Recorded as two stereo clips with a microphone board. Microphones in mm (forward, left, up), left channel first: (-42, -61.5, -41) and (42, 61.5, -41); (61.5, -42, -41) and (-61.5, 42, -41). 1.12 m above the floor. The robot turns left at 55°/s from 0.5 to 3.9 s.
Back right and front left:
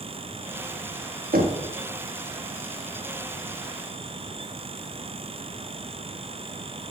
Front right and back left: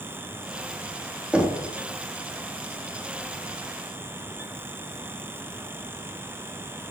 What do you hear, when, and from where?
1.3 s knocking: 65° left, 1.2 m; by 1.7 s 45° left, 1.2 m